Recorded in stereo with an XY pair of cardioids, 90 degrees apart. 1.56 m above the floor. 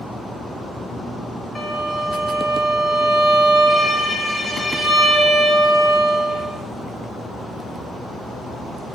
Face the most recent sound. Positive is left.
turn(degrees=5)